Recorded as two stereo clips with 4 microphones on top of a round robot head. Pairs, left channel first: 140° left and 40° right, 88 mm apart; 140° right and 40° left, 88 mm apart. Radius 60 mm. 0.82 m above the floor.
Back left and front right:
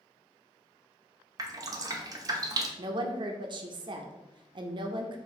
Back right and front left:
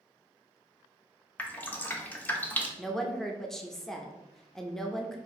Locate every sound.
1.4 s dripping: 75° right, 0.8 m
2.8 s a woman speaking: 55° right, 0.6 m